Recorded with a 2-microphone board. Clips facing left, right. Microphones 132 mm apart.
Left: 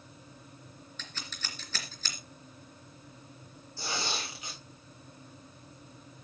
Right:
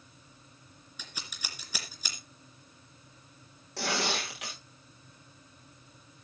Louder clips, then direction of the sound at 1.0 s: Even; 10° right (ahead or behind).